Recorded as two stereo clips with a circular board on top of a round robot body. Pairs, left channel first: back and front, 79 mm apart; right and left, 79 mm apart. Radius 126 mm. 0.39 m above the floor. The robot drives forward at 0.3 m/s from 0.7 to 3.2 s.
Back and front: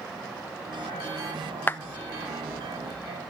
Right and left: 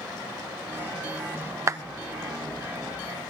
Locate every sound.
1.7 s a clap: 120° left, 1.3 m; by 1.8 s 125° left, 1.3 m